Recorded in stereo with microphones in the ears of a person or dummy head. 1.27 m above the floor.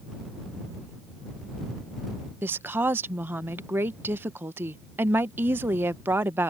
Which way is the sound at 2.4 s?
15° right (ahead or behind).